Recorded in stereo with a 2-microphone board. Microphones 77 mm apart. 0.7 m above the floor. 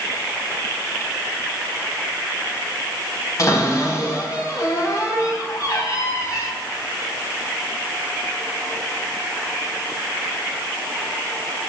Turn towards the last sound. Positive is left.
turn(degrees=50)  # may be behind; listen again after turning